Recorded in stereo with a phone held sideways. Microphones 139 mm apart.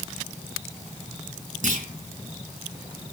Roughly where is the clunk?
Right.